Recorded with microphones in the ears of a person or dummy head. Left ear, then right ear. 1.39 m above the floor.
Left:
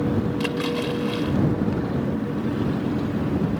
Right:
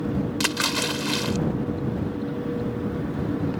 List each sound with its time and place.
0.4 s a splash: 65° right (ahead or behind)